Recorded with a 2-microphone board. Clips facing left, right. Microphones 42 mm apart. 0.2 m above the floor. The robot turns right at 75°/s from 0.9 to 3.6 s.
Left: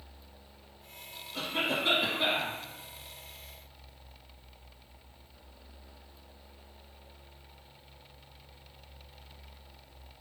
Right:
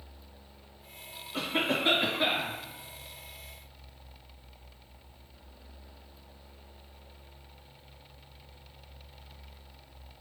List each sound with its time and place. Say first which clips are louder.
1.3 s a cough: right 2 dB; 70° right, 2 m; by 2.5 s 20° left, 2 m